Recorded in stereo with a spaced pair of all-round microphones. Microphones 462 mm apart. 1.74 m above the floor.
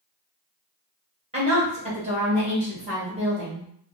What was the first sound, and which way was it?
A woman speaking, 15° right (ahead or behind).